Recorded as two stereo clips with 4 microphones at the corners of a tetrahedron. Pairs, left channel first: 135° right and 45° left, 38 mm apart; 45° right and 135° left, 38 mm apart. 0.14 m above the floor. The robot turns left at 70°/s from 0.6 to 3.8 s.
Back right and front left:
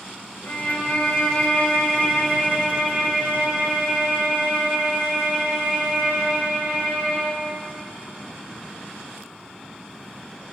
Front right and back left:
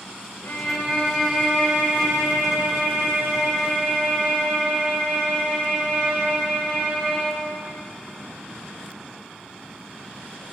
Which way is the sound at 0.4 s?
75° right.